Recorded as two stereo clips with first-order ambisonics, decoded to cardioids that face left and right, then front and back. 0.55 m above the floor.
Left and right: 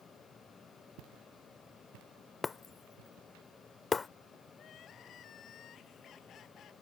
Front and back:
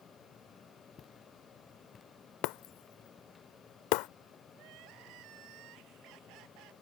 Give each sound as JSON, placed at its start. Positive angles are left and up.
{"t": 1.0, "sound": "footsteps", "azimuth_deg": -65}
{"t": 2.4, "sound": "breaking glass", "azimuth_deg": 15}
{"t": 4.5, "sound": "crying", "azimuth_deg": 145}